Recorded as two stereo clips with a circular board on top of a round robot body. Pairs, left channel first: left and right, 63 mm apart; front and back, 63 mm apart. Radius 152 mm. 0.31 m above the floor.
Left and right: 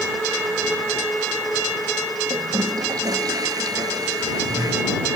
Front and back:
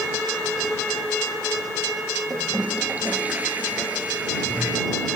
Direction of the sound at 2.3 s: 110° right.